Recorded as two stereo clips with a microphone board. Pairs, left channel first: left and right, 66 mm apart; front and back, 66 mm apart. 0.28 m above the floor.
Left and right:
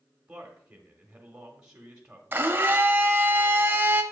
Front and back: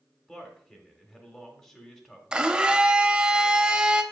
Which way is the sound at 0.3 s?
50° right.